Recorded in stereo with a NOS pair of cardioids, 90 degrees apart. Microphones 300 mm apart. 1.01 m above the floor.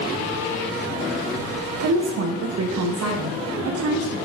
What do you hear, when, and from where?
1.8 s a woman speaking: 60° right, 0.8 m